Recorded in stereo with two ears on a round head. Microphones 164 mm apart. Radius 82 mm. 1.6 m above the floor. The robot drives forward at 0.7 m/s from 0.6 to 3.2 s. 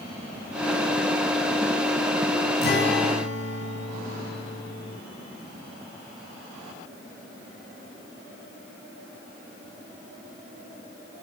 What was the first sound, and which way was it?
A guitar, 55° left (ahead or behind).